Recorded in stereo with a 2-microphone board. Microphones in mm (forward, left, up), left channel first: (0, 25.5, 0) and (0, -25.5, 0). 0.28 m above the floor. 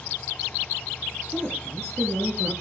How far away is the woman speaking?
About 5 m.